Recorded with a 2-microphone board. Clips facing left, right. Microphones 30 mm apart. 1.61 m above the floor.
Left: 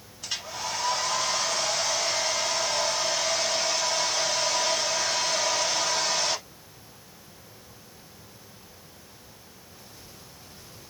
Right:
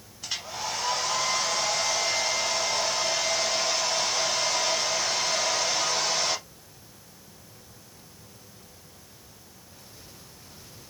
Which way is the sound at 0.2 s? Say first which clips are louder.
Even; 5° right (ahead or behind).